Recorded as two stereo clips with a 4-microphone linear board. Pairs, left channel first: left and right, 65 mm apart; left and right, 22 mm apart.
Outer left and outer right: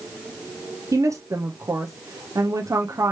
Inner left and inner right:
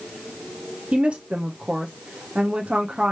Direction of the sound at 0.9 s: 55° right (ahead or behind).